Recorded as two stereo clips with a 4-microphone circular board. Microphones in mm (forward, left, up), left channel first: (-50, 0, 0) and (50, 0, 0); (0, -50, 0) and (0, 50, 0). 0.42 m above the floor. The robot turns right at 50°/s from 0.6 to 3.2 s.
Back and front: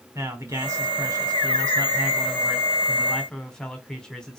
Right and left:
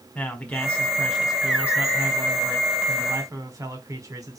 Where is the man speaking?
30° right, 1.4 m; by 4.4 s 100° left, 1.4 m.